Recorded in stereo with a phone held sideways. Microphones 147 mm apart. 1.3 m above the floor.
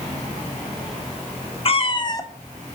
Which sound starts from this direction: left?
A cat meowing, at 1.6 s.